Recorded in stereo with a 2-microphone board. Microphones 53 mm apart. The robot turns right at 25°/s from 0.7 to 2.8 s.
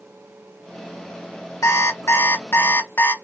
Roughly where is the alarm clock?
Left.